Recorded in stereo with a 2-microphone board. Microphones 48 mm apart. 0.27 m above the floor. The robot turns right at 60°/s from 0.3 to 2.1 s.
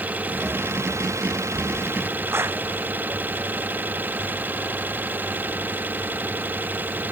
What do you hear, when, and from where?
0.0 s an engine running: 145° right; by 7.1 s 40° right
2.3 s a clap: 60° right (ahead or behind)